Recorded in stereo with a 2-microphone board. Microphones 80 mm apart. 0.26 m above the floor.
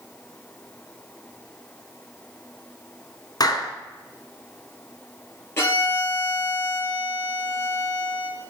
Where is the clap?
55° left (ahead or behind), 1.8 m.